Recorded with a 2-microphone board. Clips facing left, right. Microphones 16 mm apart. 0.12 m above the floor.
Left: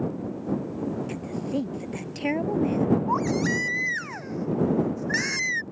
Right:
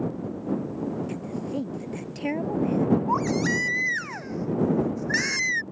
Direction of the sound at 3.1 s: 10° right (ahead or behind).